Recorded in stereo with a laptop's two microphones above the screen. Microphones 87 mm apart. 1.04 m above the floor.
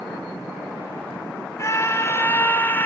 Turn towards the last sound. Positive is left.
turn(degrees=20)  # may be behind; listen again after turning